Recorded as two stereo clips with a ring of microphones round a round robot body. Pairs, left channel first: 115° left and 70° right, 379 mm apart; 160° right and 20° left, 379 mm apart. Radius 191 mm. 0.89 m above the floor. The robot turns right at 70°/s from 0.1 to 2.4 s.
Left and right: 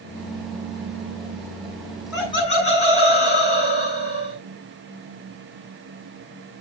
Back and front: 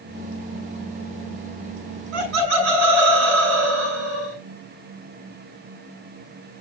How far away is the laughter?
About 7 m.